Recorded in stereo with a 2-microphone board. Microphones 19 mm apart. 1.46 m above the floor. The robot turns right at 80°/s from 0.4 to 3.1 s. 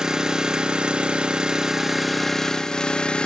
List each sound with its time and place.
0.0 s an engine running: 140° right, 0.8 m; by 3.3 s 75° left, 0.8 m